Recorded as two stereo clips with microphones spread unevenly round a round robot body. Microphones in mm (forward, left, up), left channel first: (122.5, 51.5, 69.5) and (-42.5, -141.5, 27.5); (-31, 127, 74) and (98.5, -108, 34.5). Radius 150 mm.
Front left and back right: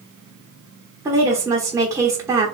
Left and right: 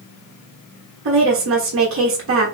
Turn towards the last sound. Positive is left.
turn(degrees=-60)